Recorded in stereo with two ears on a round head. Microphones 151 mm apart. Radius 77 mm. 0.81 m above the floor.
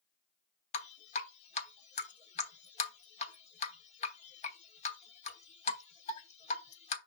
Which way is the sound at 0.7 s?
45° left (ahead or behind).